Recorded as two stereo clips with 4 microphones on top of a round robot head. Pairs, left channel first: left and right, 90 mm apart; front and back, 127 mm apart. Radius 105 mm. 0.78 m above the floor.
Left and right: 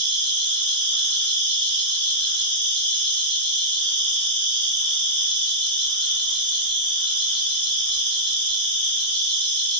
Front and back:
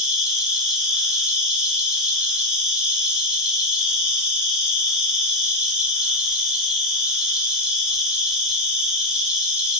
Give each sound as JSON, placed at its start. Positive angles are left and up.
{"t": 0.0, "sound": "an insect", "azimuth_deg": 110, "distance_m": 1.5}